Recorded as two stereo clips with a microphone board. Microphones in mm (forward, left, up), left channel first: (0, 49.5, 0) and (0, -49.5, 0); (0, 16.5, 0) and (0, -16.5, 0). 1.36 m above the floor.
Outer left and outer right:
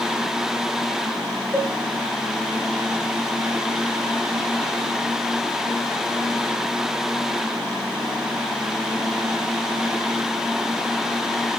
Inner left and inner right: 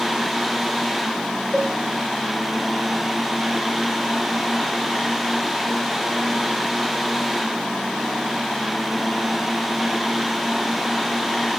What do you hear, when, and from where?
1.5 s a cowbell: 35° left (ahead or behind), 5 m